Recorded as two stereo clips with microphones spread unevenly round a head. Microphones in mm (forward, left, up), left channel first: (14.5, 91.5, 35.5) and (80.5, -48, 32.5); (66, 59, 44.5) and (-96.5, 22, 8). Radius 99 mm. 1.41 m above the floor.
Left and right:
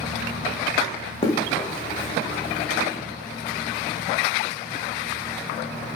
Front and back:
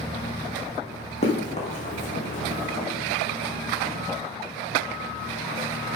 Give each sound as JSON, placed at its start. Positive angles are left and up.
{"t": 1.2, "sound": "running footsteps", "azimuth_deg": 60, "distance_m": 6.0}